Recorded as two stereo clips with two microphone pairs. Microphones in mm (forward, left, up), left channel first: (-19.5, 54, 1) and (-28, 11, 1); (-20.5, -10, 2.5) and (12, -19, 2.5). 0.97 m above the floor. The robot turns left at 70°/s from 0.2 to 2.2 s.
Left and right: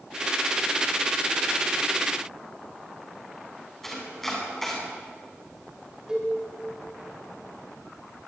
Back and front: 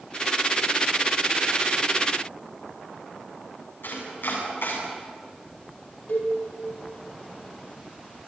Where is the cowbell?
175° right, 8.5 m.